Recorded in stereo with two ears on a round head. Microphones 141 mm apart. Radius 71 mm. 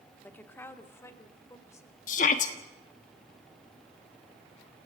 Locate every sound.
0.2 s a woman speaking: 10° left (ahead or behind), 1.3 m; by 2.0 s 20° left (ahead or behind), 2.5 m
2.1 s a shout: 50° left (ahead or behind), 1.2 m